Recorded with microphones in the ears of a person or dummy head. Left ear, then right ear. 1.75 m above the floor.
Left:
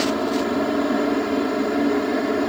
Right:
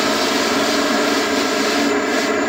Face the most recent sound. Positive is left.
turn(degrees=-50)  # may be behind; listen again after turning